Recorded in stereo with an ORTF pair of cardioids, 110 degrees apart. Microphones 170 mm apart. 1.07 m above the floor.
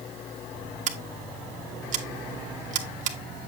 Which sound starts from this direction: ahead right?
Scissors, at 0.9 s.